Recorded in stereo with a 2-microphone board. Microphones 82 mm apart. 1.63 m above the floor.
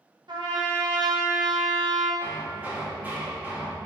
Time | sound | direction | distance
0.3 | a trumpet | 65° right (ahead or behind) | 1.2 m
2.2 | hammering | 20° right (ahead or behind) | 1.7 m